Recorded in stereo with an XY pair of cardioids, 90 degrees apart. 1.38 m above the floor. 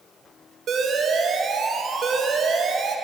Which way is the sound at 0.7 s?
65° right.